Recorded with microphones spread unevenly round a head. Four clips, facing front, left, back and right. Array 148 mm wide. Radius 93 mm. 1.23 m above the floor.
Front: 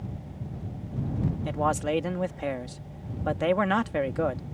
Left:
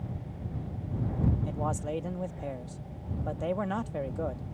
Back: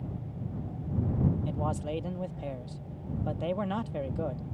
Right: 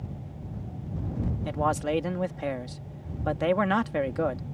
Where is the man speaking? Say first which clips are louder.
Right 6 dB, front 7 dB; 45° right.